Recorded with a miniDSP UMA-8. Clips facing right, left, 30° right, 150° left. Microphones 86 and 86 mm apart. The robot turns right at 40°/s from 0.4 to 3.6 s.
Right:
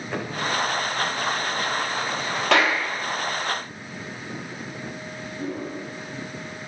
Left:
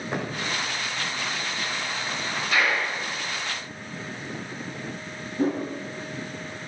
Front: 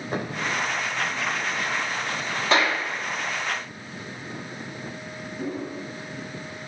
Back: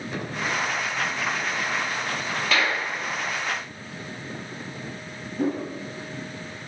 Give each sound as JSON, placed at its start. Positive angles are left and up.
{"t": 0.1, "sound": "a thud", "azimuth_deg": 20, "distance_m": 4.0}
{"t": 2.5, "sound": "a clap", "azimuth_deg": -85, "distance_m": 3.5}
{"t": 5.4, "sound": "a whoosh", "azimuth_deg": 135, "distance_m": 7.0}